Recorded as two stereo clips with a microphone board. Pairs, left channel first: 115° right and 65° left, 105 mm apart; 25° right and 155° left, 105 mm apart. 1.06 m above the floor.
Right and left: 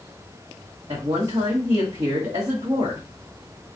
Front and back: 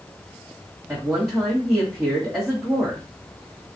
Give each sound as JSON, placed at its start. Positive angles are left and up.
{"t": 0.9, "sound": "a woman speaking", "azimuth_deg": 80, "distance_m": 1.2}